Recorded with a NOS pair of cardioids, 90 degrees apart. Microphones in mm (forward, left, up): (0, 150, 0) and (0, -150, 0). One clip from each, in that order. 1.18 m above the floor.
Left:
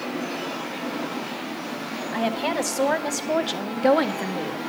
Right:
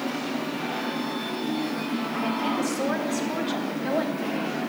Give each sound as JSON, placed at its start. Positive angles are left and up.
{"t": 2.1, "sound": "a woman speaking", "azimuth_deg": 60, "distance_m": 1.9}